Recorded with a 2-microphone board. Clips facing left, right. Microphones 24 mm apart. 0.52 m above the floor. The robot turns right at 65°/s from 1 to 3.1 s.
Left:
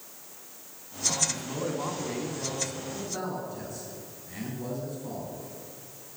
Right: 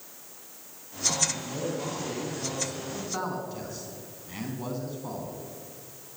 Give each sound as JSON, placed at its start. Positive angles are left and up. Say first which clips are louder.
{"t": 1.3, "sound": "a man speaking", "louder": "even", "azimuth_deg": 105, "distance_m": 5.5}